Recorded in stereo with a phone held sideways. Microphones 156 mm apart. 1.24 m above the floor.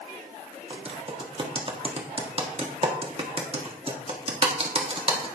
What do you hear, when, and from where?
0.7 s typing on a keyboard: 35° right (ahead or behind), 1.4 m